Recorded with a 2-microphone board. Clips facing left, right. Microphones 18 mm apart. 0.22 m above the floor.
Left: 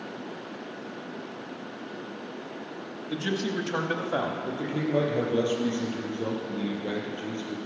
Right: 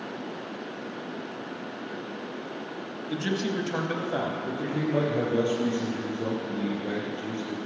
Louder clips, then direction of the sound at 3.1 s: Even; 15° right (ahead or behind).